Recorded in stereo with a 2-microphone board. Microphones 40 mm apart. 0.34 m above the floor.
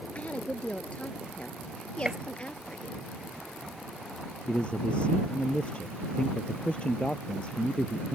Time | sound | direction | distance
0.1 | a woman speaking | 30° left (ahead or behind) | ?
2.0 | a gunshot | 25° right (ahead or behind) | ?
4.5 | a man speaking | 30° left (ahead or behind) | ?